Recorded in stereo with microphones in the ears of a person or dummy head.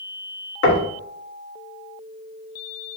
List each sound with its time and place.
0.6 s knocking: 75° left (ahead or behind), 1.5 m